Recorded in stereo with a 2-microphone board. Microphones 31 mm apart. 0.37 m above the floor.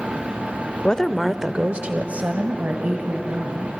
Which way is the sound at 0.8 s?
30° left (ahead or behind).